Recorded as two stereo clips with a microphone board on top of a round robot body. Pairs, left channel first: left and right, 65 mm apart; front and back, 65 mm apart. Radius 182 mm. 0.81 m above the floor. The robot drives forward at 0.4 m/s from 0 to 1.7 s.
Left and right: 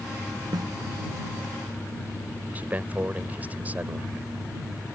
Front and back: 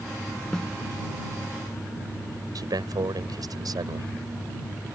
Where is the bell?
No bell in this recording.